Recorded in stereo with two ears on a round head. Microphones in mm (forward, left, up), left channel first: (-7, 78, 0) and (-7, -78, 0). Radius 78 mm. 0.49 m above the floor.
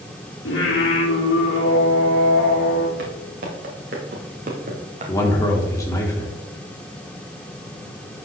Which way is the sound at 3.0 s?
55° right (ahead or behind).